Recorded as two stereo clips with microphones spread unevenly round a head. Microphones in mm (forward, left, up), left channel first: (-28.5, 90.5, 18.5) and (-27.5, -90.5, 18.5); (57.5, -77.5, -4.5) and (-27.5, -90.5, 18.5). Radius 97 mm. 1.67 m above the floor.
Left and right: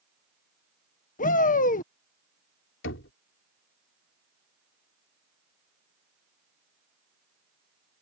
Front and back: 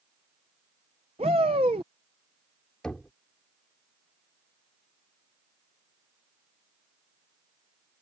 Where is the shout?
135° left.